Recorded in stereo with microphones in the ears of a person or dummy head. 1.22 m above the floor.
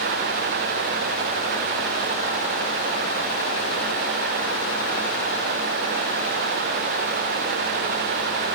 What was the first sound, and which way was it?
Only background noise.